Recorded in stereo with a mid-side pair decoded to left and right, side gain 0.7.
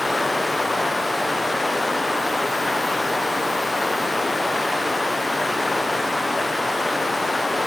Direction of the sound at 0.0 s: 10° left.